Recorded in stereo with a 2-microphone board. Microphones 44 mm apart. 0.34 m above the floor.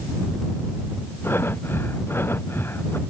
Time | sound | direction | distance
1.2 | breathing | 65° left (ahead or behind) | ?